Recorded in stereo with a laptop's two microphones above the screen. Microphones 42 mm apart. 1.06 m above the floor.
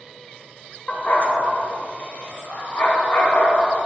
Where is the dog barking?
30° left (ahead or behind), 0.8 m; by 3.7 s 70° left (ahead or behind), 3 m.